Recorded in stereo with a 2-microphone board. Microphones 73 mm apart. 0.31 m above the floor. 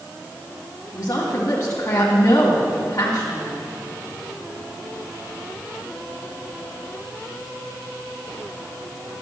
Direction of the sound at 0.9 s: 45° left (ahead or behind).